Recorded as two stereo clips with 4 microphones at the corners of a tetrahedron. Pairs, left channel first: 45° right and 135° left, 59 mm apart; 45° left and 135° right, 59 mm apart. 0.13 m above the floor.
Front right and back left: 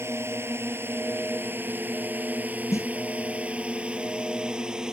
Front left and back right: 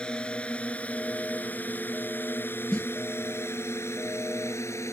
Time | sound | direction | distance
0.0 | a drone | 115° left | ?
2.7 | a snare drum | 30° right | ?